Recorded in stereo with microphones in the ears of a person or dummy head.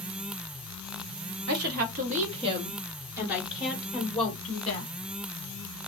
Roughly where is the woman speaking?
Right.